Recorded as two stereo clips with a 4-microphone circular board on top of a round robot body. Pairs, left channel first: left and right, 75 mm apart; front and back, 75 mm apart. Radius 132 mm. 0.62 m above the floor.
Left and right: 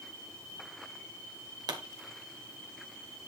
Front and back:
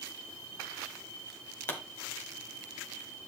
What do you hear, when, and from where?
1.7 s a pop: 60° right, 1.2 m